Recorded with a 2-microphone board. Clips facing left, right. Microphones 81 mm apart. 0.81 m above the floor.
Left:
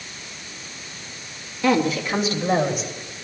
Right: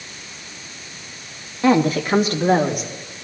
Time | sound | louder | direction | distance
1.6 | a woman speaking | right 3 dB | 30° right (ahead or behind) | 1.1 m